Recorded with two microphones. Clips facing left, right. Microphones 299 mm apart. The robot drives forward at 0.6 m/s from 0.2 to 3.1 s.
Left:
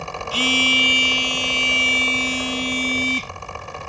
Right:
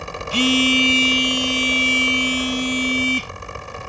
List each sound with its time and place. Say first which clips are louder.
0.3 s a phone buzzing: right 7 dB; 30° right (ahead or behind); by 3.3 s 15° right (ahead or behind)